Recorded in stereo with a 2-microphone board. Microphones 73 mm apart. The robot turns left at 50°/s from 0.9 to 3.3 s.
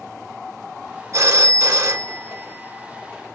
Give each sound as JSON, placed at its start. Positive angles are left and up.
{"t": 1.1, "sound": "a phone ringing", "azimuth_deg": -65, "distance_m": 0.9}